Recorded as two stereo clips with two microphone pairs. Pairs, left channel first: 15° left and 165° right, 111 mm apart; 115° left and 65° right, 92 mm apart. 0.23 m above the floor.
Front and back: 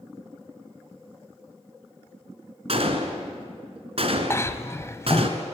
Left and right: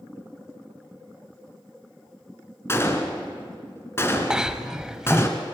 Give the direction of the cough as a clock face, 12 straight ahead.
12 o'clock.